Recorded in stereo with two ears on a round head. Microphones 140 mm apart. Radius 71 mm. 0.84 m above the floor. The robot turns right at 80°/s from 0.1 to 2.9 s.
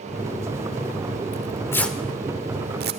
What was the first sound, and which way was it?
Tearing paper, 50° left (ahead or behind).